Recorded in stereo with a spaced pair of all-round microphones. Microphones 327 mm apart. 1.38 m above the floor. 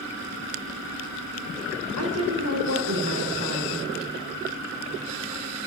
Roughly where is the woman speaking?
Right.